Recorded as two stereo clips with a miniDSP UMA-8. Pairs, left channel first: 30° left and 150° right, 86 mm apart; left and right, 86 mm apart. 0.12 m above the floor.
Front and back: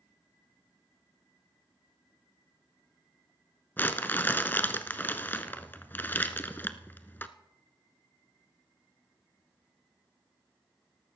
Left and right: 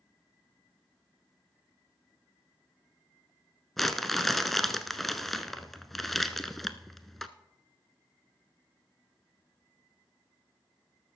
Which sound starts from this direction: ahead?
Crumpling, at 3.8 s.